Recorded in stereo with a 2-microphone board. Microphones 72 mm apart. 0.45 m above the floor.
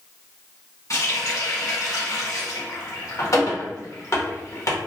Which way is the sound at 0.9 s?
45° left (ahead or behind).